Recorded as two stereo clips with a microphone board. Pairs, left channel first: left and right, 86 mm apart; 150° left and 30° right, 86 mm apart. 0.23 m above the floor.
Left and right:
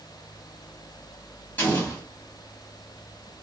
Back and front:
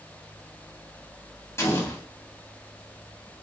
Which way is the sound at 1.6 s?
140° left.